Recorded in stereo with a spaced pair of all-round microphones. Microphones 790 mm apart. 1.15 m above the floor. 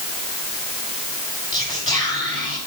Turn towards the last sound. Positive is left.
turn(degrees=30)  # may be behind; listen again after turning